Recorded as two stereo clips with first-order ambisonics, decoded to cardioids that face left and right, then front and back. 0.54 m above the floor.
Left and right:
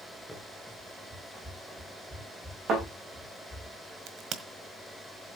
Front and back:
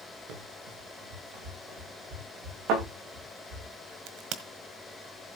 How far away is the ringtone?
I don't hear a ringtone.